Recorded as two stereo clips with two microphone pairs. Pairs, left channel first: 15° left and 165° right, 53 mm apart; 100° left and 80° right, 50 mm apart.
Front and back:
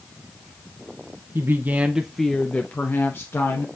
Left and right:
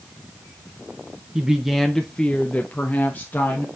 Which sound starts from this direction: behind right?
A woman speaking, at 1.4 s.